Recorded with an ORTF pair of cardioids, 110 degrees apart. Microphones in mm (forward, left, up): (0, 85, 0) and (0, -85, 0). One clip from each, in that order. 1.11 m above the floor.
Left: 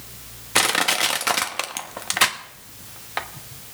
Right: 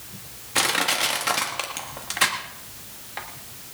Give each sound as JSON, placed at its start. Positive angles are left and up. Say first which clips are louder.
{"t": 0.6, "sound": "crushing", "louder": "left 3 dB", "azimuth_deg": 40, "distance_m": 1.3}